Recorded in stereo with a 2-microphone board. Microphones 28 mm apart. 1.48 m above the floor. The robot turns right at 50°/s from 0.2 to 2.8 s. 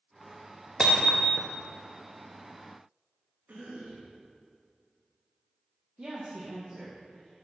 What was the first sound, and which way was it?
Hammering, 25° right.